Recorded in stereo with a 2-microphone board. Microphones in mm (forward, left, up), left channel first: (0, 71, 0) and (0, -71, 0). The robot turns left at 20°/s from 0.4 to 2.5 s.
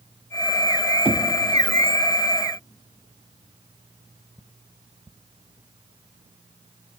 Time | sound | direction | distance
1.1 | knocking | 35° right (ahead or behind) | 0.5 m